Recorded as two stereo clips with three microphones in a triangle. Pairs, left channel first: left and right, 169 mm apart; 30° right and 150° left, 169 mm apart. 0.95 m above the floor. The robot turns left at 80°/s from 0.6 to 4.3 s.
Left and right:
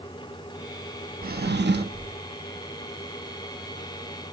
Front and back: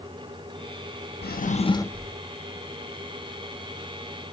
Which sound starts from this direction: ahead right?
A drawer, at 1.2 s.